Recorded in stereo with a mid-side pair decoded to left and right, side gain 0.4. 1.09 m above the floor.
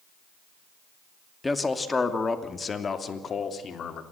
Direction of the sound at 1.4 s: 20° left.